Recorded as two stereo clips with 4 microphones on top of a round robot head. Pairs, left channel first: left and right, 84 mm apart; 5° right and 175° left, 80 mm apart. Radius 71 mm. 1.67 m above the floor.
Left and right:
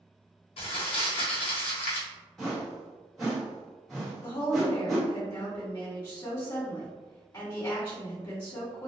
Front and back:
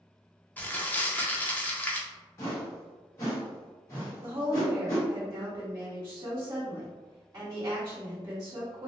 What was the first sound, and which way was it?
Crumpling, 65° left.